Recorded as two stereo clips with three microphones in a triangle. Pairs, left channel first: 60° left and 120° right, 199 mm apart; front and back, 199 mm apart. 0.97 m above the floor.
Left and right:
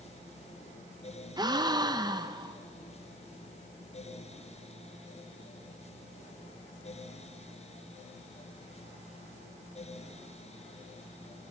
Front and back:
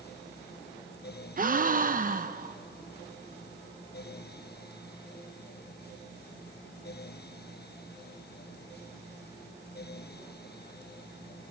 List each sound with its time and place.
1.4 s a gasp: straight behind, 0.7 m